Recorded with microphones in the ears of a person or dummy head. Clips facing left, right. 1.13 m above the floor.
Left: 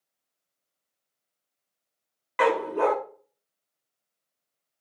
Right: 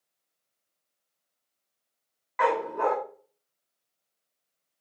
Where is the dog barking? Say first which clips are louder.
Left 3 dB; 40° left (ahead or behind), 0.8 m.